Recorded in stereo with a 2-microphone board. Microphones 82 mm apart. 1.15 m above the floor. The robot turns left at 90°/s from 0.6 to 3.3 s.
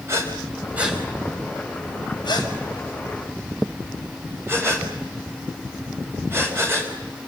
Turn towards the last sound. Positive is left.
turn(degrees=-30)  # may be behind; listen again after turning